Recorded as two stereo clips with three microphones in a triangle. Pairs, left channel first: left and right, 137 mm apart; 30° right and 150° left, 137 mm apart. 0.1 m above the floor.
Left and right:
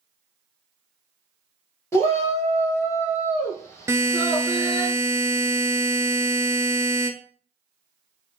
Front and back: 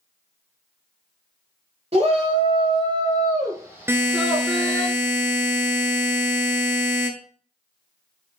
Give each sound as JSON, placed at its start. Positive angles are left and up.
{"t": 1.9, "sound": "a shout", "azimuth_deg": 150, "distance_m": 1.9}
{"t": 3.9, "sound": "a buzzer", "azimuth_deg": -150, "distance_m": 0.6}